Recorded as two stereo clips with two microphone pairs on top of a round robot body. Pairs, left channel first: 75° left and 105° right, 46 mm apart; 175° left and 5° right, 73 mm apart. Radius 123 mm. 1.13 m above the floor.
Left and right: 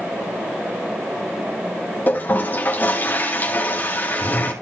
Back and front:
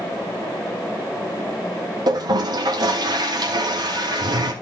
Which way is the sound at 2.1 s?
20° left.